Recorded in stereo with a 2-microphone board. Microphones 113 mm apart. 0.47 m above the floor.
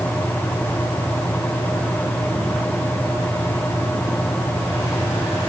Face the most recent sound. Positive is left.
No sound to turn to.